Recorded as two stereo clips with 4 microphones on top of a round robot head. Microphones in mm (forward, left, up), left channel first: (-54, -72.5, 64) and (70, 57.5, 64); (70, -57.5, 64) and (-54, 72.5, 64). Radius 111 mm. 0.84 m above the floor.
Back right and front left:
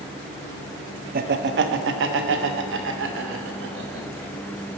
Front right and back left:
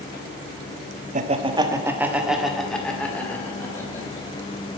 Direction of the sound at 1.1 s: 85° left.